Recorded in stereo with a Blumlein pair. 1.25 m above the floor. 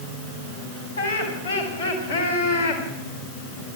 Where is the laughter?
65° left, 5.5 m; by 2.8 s 55° left, 3.5 m.